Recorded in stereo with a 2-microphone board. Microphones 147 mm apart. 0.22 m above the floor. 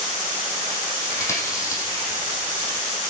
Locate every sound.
1.1 s chewing: 20° left (ahead or behind), 4 m